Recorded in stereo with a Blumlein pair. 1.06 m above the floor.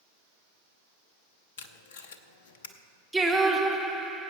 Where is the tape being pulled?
55° left, 0.8 m.